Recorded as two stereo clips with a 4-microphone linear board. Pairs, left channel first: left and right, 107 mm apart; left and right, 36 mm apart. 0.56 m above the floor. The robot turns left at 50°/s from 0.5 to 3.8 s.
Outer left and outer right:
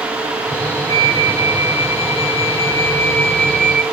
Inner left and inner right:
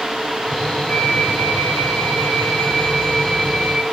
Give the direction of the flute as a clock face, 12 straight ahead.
7 o'clock.